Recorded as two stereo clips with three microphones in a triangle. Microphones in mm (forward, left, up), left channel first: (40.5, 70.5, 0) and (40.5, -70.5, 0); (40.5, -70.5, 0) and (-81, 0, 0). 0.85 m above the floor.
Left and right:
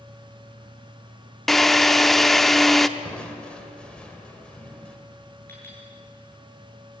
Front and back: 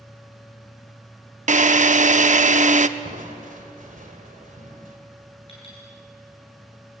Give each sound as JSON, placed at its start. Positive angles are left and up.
{"t": 1.5, "sound": "a drill", "azimuth_deg": 180, "distance_m": 0.7}
{"t": 3.0, "sound": "crushing", "azimuth_deg": 175, "distance_m": 2.5}
{"t": 5.5, "sound": "a clink", "azimuth_deg": 15, "distance_m": 8.0}